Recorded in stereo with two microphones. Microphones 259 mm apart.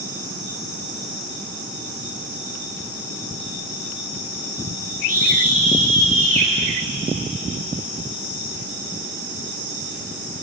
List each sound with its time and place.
5.1 s a scream: 65° right (ahead or behind), 6 m; by 6.5 s 60° right (ahead or behind), 6 m